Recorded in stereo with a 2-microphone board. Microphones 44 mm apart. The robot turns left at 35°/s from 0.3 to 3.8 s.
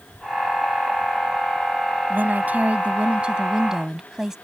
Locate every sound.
2.1 s a woman speaking: 105° right; by 4.4 s 165° right